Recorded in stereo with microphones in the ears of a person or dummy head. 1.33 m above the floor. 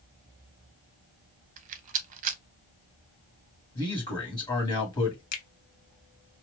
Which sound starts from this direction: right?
A rattle, at 1.6 s.